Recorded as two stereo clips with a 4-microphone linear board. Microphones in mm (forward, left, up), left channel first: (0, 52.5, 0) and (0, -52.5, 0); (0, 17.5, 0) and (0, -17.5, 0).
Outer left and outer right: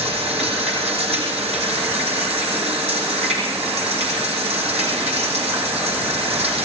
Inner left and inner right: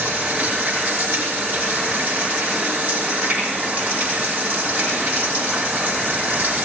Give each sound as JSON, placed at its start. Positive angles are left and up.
{"t": 0.0, "sound": "running water", "side_deg": -75, "distance_m": 5.0}